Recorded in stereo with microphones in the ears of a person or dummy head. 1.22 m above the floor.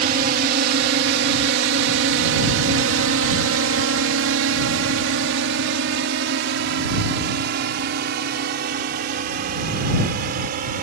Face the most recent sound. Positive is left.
turn(degrees=-50)  # may be behind; listen again after turning